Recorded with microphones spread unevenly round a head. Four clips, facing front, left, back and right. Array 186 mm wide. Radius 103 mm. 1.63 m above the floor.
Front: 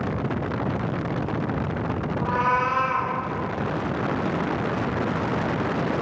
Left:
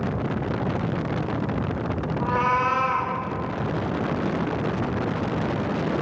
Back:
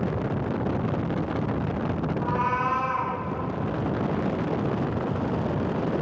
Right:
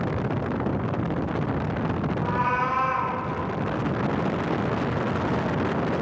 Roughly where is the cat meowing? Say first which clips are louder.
Left 4 dB, front 4 dB; left.